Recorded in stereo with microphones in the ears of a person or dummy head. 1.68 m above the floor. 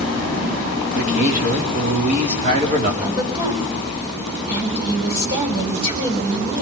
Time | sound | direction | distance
0.9 | a man speaking | 45° right (ahead or behind) | 4 m
3.0 | a woman speaking | 25° right (ahead or behind) | 8.5 m